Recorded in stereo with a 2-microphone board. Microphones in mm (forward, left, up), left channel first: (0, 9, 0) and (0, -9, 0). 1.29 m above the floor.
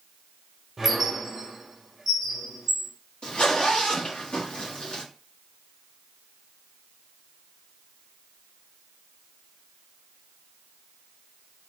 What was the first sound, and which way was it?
A squeak, 10° right (ahead or behind).